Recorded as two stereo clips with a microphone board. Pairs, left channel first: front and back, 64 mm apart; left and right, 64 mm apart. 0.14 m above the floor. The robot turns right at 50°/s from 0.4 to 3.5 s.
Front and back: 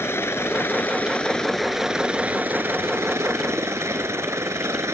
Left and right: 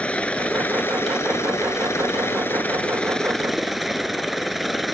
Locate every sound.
0.0 s a helicopter: 25° left; by 5.0 s straight behind